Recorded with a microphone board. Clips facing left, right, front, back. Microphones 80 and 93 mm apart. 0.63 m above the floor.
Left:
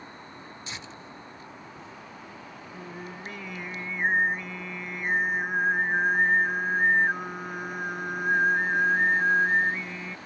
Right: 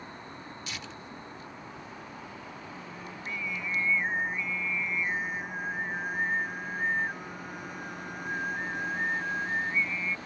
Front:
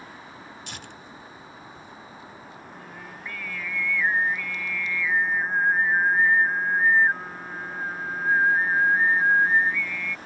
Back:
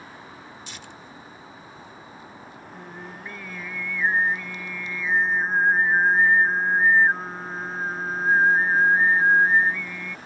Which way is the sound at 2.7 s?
115° left.